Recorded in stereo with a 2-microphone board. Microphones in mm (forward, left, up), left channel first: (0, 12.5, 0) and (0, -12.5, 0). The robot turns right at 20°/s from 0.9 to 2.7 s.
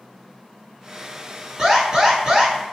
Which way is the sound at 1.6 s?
25° right (ahead or behind).